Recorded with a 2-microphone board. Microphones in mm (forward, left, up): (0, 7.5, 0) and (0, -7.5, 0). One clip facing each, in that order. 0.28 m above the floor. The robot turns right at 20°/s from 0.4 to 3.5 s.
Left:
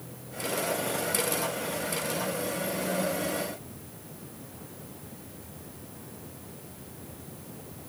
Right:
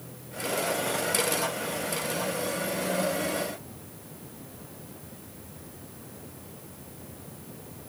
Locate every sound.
Only background noise.